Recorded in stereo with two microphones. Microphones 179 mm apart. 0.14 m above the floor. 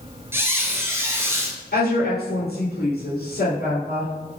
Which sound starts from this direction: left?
A woman speaking, at 1.7 s.